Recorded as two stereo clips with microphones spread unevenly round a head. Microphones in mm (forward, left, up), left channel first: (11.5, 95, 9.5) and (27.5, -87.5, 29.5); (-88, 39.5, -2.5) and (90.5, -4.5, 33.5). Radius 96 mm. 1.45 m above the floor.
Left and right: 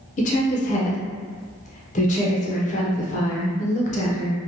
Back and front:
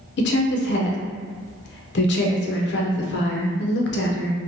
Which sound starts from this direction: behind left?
A woman speaking, at 0.2 s.